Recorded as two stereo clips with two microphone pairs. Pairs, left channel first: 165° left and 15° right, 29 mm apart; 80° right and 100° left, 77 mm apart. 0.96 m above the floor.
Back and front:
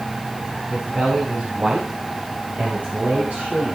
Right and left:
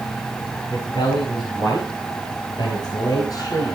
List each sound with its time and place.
0.7 s a man speaking: 65° right, 5.5 m; by 3.8 s 40° right, 4.5 m